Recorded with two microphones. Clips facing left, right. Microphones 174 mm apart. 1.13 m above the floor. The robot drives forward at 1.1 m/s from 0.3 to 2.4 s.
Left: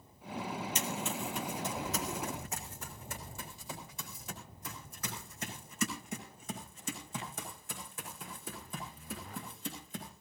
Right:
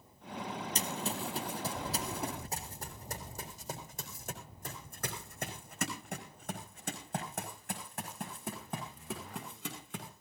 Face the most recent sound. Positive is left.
turn(degrees=-70)  # may be behind; listen again after turning